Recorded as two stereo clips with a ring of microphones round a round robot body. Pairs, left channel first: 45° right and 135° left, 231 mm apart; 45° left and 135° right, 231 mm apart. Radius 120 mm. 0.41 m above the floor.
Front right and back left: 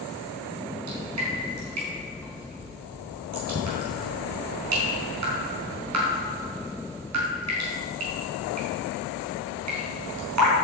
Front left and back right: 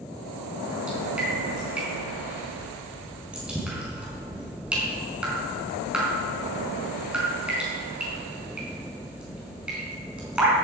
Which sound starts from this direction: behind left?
Dripping, at 0.9 s.